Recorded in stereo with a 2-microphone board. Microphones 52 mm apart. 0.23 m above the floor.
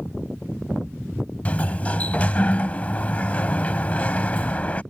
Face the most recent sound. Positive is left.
turn(degrees=30)  # may be behind; listen again after turning